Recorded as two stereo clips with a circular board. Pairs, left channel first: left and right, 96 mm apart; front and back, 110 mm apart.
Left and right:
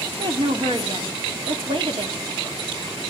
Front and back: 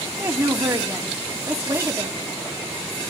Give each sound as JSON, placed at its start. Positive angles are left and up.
{"t": 0.2, "sound": "a woman speaking", "azimuth_deg": -115, "distance_m": 1.9}